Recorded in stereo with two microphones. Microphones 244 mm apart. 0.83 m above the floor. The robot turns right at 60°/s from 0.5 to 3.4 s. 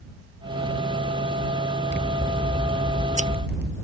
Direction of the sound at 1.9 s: 130° left.